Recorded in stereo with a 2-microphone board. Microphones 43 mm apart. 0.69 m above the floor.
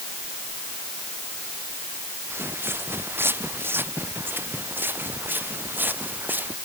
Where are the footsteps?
70° right (ahead or behind); by 6.6 s 50° right (ahead or behind).